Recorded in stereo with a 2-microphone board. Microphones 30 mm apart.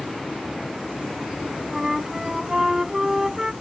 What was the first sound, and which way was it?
A flute, 20° right (ahead or behind).